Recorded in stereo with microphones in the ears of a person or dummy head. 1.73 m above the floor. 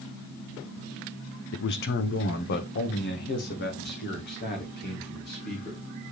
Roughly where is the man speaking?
Left.